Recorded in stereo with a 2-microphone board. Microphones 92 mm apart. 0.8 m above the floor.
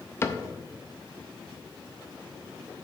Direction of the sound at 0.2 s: 25° left (ahead or behind).